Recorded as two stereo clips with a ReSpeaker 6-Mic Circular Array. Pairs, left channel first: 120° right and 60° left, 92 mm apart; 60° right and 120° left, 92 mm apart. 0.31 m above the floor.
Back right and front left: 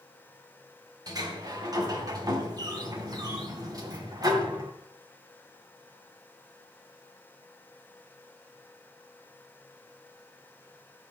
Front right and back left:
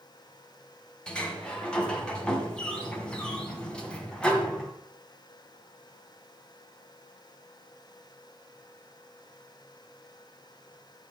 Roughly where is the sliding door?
Ahead.